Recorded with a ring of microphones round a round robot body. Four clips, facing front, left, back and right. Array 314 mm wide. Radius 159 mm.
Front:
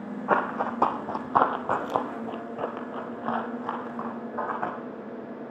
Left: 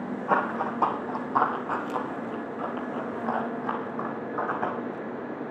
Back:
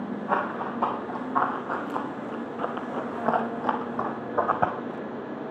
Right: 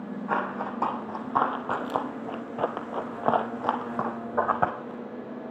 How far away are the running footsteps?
About 2.5 m.